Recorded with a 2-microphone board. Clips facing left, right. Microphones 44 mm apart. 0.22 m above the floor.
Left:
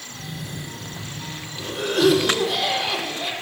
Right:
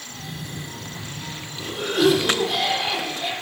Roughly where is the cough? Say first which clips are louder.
Left 1 dB; centre.